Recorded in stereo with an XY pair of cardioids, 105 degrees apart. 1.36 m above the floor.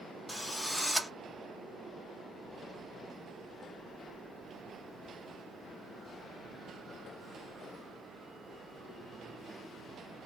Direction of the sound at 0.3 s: 5° left.